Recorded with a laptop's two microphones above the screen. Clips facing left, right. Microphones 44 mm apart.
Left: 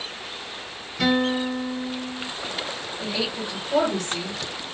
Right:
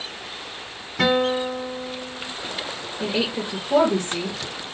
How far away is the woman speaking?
About 1.5 m.